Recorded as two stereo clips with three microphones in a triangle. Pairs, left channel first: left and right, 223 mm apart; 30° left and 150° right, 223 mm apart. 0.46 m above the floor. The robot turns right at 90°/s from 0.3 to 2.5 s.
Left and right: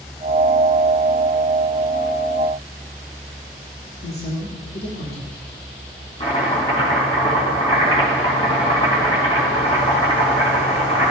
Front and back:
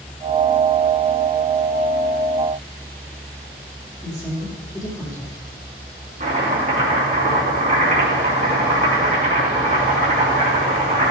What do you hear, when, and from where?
4.0 s a woman speaking: 95° left, 1.8 m
6.2 s chopping: 155° left, 3.5 m